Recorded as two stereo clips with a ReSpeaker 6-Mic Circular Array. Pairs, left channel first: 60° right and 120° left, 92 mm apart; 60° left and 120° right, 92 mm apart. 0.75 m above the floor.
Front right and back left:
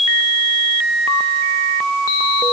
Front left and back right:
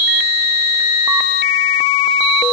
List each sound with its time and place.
Only background noise.